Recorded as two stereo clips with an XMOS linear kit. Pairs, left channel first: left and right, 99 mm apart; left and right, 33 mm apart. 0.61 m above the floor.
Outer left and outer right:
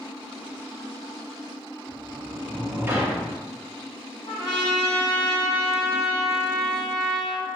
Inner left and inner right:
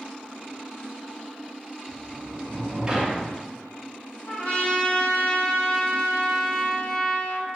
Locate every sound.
1.9 s a sliding door: 20° right (ahead or behind), 0.7 m
4.3 s a trumpet: 60° left (ahead or behind), 1.6 m